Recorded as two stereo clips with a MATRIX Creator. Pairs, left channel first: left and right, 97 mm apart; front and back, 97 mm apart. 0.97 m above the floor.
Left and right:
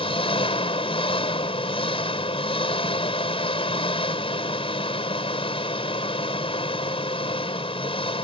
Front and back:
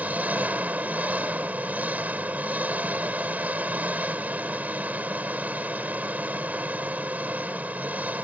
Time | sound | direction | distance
0.0 | an engine running | 105° left | ?